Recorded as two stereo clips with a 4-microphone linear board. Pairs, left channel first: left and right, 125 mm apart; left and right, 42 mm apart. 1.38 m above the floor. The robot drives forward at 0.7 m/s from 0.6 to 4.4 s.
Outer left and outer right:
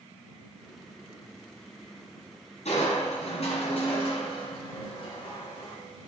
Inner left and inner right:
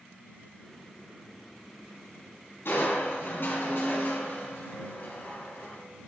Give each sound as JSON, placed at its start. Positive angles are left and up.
{"t": 2.6, "sound": "crushing", "side_deg": 60, "distance_m": 3.5}